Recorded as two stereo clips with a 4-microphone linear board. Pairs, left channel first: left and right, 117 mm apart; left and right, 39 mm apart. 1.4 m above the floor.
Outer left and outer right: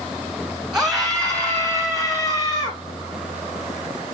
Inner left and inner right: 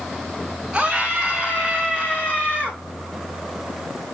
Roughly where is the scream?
Centre.